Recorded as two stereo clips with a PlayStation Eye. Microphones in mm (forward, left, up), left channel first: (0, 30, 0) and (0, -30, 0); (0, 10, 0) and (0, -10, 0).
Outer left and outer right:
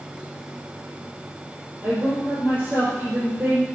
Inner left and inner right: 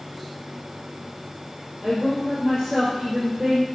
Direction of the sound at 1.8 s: 35° right (ahead or behind).